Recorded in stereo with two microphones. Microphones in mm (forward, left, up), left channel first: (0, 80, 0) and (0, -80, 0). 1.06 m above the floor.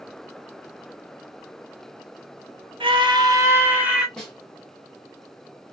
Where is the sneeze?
I don't hear a sneeze.